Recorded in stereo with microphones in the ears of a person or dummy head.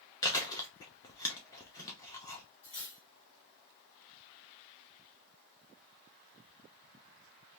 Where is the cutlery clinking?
70° left (ahead or behind), 2 m.